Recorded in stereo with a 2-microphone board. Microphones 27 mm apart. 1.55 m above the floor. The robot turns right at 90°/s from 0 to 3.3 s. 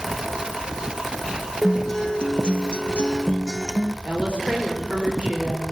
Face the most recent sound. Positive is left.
turn(degrees=-50)  # may be behind; listen again after turning